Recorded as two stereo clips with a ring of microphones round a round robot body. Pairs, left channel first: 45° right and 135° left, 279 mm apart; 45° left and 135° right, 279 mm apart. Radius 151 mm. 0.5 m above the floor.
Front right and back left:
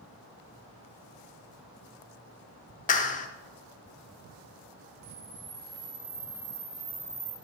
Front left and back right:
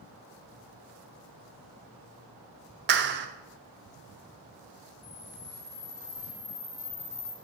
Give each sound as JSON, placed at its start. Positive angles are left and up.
{"t": 2.9, "sound": "a clap", "azimuth_deg": -100, "distance_m": 0.8}
{"t": 5.0, "sound": "a camera shutter", "azimuth_deg": 90, "distance_m": 2.5}